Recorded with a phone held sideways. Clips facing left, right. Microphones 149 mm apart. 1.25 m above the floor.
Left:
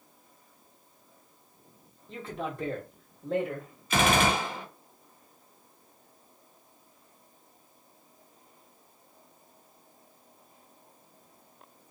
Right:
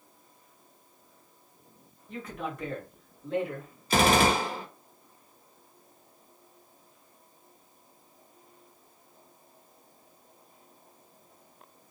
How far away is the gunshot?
About 0.8 m.